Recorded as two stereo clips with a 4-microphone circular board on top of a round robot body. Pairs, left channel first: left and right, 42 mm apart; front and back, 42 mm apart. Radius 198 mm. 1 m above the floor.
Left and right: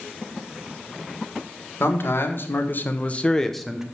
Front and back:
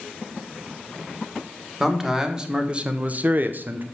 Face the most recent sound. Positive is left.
turn(degrees=-160)